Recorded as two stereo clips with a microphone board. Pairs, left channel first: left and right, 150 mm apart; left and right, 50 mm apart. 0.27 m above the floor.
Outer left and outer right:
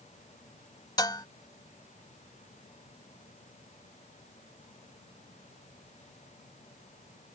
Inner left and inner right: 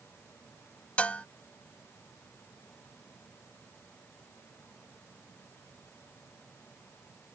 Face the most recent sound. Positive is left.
turn(degrees=25)  # may be behind; listen again after turning